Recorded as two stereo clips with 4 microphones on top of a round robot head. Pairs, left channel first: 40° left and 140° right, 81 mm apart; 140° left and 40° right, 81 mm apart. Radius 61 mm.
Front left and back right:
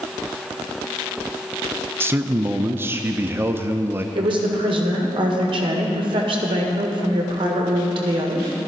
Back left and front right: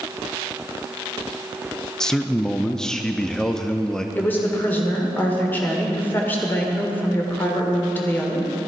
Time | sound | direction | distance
2.0 | a man speaking | 145° right | 0.5 m
4.2 | a woman speaking | 155° right | 1.7 m